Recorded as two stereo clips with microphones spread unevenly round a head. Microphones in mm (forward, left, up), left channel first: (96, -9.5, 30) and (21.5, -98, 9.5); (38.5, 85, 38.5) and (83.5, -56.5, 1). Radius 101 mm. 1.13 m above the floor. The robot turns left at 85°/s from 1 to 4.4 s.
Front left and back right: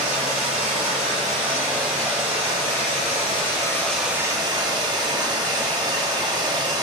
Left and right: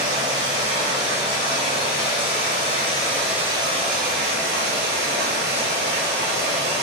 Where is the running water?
145° right, 1.0 m; by 6.8 s 70° right, 1.0 m.